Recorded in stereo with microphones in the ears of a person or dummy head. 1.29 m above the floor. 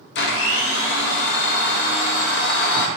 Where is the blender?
55° left (ahead or behind), 0.5 m.